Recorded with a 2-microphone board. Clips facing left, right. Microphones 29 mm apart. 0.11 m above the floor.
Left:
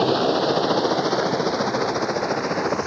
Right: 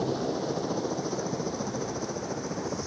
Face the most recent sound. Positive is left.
turn(degrees=65)  # may be behind; listen again after turning